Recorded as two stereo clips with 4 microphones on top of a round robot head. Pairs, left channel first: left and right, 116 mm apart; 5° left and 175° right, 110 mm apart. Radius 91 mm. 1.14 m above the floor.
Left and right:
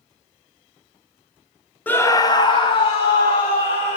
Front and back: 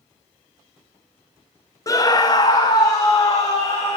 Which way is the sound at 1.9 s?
25° left.